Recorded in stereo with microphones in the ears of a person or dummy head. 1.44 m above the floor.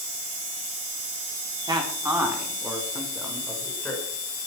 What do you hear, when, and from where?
1.7 s a man speaking: 20° right (ahead or behind), 4 m; by 4.0 s 5° left (ahead or behind), 7 m